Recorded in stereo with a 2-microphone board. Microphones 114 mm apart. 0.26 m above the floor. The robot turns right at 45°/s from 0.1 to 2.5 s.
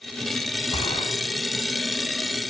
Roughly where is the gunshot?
Left.